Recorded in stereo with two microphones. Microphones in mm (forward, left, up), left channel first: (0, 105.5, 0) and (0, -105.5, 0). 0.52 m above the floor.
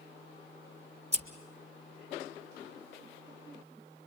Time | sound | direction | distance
1.1 | scissors | 30° right (ahead or behind) | 1.7 m